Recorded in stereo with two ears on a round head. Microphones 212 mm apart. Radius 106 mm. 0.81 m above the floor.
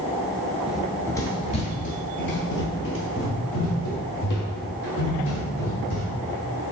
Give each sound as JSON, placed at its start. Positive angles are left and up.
{"t": 0.7, "sound": "running footsteps", "side_deg": -5, "distance_m": 0.8}